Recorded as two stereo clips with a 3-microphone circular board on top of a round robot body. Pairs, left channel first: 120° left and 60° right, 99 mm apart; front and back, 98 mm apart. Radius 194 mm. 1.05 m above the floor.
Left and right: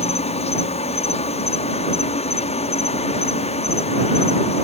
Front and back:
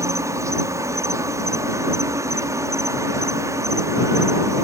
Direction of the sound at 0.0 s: 120° left.